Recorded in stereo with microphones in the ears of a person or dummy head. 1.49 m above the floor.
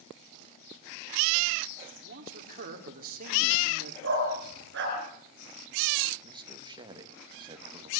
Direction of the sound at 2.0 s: 45° right (ahead or behind).